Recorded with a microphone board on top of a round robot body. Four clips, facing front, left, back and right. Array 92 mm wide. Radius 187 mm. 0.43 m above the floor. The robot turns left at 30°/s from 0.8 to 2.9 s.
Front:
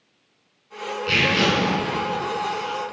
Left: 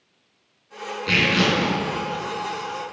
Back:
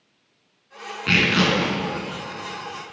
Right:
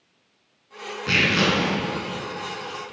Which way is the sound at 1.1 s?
160° right.